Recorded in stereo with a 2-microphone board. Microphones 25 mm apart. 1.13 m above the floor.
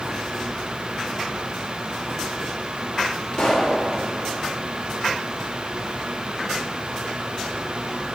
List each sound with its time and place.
3.3 s a pop: 50° left (ahead or behind), 2 m